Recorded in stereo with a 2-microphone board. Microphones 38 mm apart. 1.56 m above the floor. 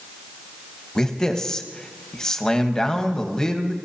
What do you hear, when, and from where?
0.9 s a man speaking: 15° left (ahead or behind), 1.2 m